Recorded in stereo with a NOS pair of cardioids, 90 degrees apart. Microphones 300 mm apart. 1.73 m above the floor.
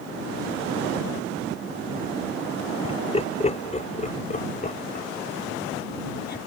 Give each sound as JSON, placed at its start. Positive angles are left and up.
{"t": 2.8, "sound": "laughter", "azimuth_deg": 20}